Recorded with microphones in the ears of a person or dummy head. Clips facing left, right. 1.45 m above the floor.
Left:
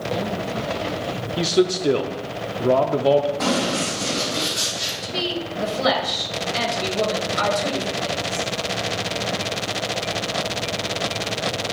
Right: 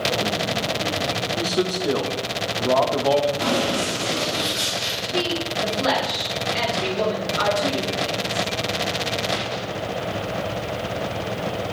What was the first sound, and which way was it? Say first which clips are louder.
A man speaking: left 6 dB; 25° left (ahead or behind).